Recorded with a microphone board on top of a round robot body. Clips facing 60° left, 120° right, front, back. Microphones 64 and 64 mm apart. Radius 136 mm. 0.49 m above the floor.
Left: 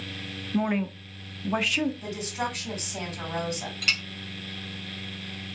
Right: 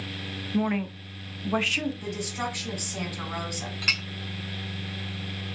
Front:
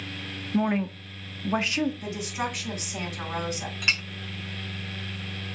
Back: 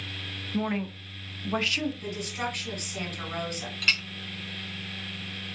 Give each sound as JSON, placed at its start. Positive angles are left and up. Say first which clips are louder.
{"t": 0.5, "sound": "a woman speaking", "louder": "even, front 4 dB", "azimuth_deg": -25, "distance_m": 0.9}
{"t": 2.0, "sound": "a woman speaking", "louder": "even, front 2 dB", "azimuth_deg": -75, "distance_m": 3.0}
{"t": 3.8, "sound": "a clink", "louder": "even, even", "azimuth_deg": -70, "distance_m": 1.0}